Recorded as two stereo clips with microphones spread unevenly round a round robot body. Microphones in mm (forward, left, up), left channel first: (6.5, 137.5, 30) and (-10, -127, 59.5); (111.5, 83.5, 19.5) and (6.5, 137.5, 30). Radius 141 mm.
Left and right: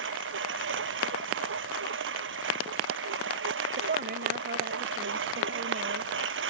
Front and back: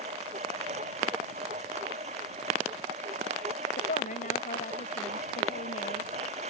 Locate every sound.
0.0 s a lawn mower: 140° right
3.8 s a woman speaking: 35° right